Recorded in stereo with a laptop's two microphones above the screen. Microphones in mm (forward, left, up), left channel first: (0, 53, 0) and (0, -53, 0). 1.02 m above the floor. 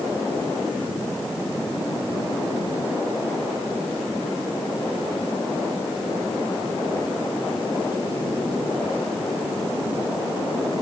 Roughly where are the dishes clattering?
No dishes clattering in this recording.